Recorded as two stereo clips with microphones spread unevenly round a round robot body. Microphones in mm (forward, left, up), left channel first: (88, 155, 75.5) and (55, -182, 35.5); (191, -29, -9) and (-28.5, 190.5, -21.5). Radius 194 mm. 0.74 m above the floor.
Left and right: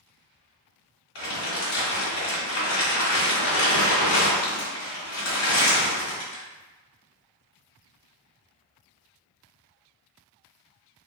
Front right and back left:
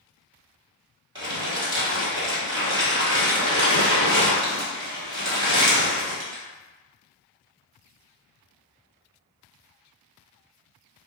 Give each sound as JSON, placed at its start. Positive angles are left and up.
{"t": 1.1, "sound": "crumpling", "azimuth_deg": 65, "distance_m": 1.9}